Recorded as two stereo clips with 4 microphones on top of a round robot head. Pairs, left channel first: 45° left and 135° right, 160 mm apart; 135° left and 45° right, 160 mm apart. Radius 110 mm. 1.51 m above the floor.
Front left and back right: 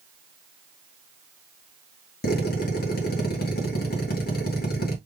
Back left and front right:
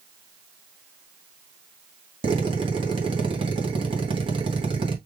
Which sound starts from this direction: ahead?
A drill, at 2.2 s.